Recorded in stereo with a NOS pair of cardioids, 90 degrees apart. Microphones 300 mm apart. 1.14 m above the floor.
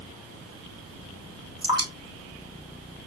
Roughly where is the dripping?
Ahead.